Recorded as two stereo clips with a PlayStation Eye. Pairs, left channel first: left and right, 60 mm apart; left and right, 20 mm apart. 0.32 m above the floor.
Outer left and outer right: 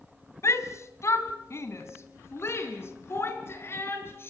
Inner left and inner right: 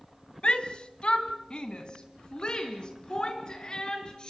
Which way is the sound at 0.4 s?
50° left (ahead or behind).